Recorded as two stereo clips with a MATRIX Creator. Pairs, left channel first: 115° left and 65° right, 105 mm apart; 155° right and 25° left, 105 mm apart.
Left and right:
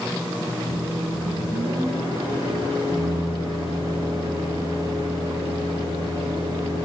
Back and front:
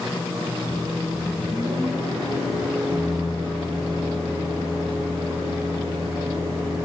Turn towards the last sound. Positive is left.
turn(degrees=-50)